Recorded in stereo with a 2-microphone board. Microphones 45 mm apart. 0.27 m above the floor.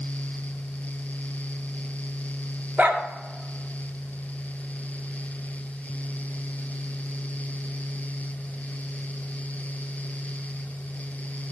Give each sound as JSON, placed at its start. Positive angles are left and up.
{"t": 2.8, "sound": "a dog barking", "side_deg": -30, "distance_m": 1.6}